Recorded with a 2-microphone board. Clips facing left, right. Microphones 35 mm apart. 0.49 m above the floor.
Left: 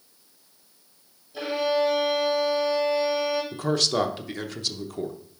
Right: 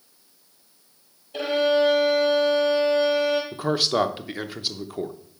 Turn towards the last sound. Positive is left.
turn(degrees=-15)  # may be behind; listen again after turning